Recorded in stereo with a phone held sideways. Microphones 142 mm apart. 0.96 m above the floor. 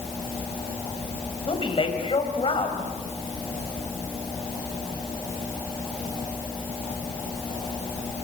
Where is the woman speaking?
45° left (ahead or behind), 4.5 m.